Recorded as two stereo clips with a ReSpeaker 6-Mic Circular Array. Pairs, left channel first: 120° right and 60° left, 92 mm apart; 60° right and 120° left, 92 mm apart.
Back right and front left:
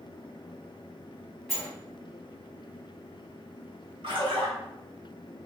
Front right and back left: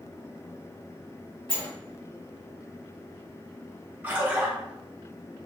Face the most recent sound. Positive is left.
turn(degrees=55)